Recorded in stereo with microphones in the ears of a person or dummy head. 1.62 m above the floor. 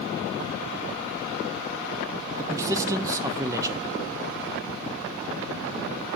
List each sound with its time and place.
2.4 s a man speaking: 15° right (ahead or behind), 0.6 m